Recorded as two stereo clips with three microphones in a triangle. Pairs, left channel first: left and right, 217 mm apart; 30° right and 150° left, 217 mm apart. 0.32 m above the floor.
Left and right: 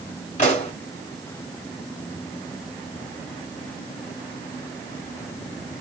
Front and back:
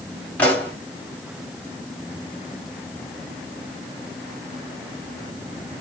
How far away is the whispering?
No whispering in this recording.